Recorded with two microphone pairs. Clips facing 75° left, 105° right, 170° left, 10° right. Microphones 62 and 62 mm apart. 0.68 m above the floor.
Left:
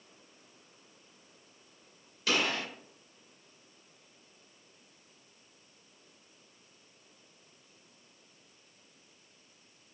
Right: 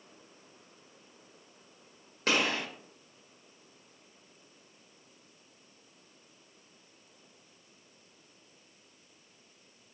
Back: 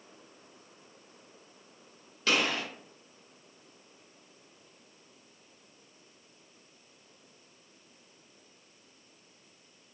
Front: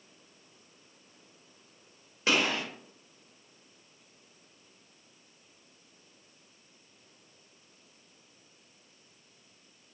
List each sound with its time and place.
2.3 s a gunshot: 75° right, 1.3 m